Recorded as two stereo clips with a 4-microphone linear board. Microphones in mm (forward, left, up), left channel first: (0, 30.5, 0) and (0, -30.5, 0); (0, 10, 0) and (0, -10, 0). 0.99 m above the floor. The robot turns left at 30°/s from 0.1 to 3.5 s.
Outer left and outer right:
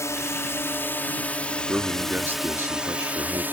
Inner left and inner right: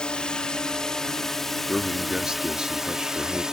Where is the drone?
65° left; by 3.5 s 35° right.